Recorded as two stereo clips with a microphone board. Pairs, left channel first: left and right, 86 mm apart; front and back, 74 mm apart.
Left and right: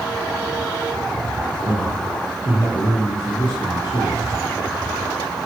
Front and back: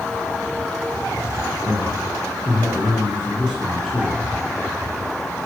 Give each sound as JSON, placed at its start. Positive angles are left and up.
{"t": 1.6, "sound": "a man speaking", "azimuth_deg": 90, "distance_m": 8.5}